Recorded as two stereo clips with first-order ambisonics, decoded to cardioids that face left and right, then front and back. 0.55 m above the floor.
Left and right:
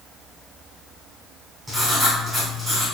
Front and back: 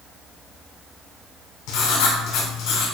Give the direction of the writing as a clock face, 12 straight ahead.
12 o'clock.